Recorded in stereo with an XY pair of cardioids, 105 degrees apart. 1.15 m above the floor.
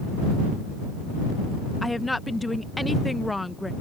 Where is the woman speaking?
10° left.